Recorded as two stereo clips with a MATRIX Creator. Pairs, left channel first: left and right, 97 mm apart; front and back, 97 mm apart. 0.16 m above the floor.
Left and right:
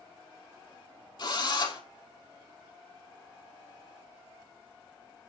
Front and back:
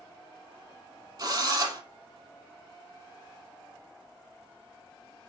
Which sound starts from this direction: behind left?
A drill, at 1.2 s.